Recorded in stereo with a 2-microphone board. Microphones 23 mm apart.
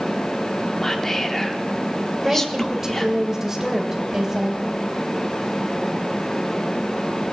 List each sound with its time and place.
0.8 s whispering: 15° left (ahead or behind), 0.7 m
2.2 s a woman speaking: 25° right (ahead or behind), 2 m